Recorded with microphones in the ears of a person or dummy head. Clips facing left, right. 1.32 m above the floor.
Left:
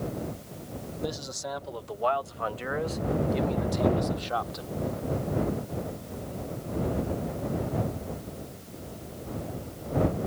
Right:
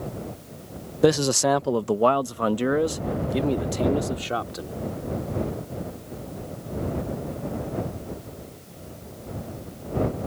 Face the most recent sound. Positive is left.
turn(degrees=-35)  # may be behind; listen again after turning